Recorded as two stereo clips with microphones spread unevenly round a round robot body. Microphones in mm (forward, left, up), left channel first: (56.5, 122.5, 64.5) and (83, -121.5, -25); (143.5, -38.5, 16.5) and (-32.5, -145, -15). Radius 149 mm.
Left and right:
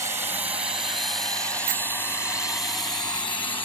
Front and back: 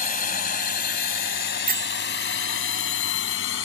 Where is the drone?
15° right; by 3.7 s 20° left.